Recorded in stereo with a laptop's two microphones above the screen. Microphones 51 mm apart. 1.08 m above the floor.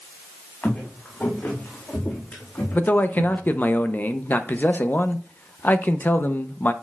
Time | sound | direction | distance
0.6 | footsteps | 30° left (ahead or behind) | 4.5 m
2.7 | a man speaking | 35° left (ahead or behind) | 0.6 m